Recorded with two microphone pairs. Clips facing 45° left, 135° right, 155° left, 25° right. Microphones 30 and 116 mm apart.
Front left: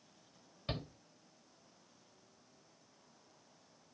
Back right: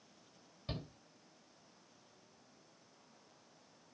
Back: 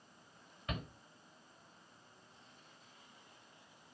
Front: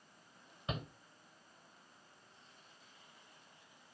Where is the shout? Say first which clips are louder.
Front left 3 dB, front 1 dB; 30° left, 1.2 m.